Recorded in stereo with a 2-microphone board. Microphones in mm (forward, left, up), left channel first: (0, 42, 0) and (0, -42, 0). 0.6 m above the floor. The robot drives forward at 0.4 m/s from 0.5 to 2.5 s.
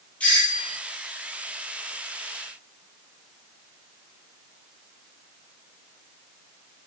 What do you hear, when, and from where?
0.2 s a doorbell: 15° left (ahead or behind), 1.2 m